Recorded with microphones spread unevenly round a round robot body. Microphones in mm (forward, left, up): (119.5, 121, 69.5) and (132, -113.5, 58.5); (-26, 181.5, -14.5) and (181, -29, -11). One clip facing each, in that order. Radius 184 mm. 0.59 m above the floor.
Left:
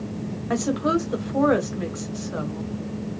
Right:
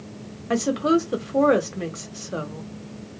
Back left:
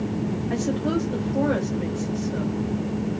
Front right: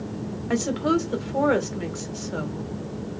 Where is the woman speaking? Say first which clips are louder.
Right 3 dB, front right 3 dB; 35° right, 1.7 m.